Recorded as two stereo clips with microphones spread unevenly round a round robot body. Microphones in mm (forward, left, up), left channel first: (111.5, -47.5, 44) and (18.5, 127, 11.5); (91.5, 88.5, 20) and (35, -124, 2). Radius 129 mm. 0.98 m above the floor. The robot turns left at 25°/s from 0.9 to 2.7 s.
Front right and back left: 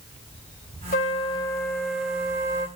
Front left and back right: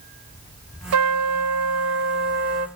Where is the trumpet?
125° right, 0.6 m; by 2.7 s 170° right, 0.6 m.